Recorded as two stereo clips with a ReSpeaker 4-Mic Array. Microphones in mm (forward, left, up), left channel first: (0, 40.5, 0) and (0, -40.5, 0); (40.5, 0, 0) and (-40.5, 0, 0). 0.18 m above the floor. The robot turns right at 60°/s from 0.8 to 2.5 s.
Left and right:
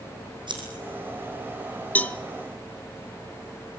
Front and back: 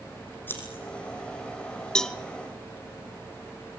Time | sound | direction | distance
0.5 | scissors | 65° right | 5.5 m
1.9 | a cowbell | 65° left | 0.8 m